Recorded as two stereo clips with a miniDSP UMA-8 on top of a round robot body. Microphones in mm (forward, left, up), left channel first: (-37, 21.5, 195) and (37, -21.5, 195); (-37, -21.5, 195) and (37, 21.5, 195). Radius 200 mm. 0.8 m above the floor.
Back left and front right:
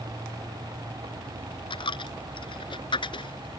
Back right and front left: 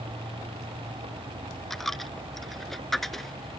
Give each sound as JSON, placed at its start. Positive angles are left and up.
{"t": 1.7, "sound": "a dropped coin", "azimuth_deg": 125}